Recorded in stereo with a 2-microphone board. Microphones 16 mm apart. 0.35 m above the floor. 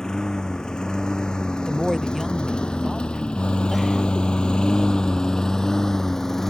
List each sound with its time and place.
0.0 s a lawn mower: 45° left (ahead or behind); by 6.5 s 25° left (ahead or behind)
1.7 s a woman speaking: centre (ahead or behind)